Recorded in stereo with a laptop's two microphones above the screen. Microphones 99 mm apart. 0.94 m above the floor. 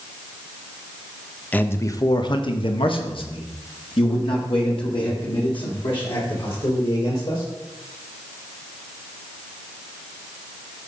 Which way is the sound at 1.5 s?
15° left (ahead or behind).